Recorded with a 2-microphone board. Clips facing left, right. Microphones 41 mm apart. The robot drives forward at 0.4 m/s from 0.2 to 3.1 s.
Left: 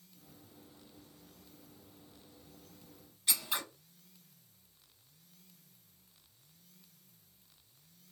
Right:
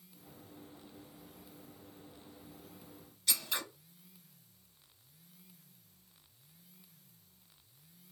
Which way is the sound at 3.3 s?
25° left (ahead or behind).